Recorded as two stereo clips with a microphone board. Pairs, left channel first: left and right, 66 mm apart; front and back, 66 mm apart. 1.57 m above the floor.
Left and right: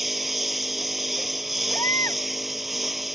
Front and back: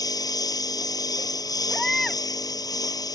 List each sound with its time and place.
0.0 s a lawn mower: 5° right
1.7 s a baby crying: 80° left